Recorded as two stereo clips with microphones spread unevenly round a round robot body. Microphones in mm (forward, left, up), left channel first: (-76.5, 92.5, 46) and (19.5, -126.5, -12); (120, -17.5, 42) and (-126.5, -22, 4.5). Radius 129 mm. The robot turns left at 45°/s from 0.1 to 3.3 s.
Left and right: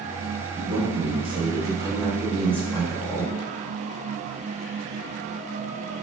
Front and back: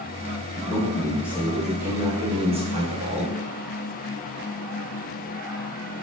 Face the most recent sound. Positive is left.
turn(degrees=180)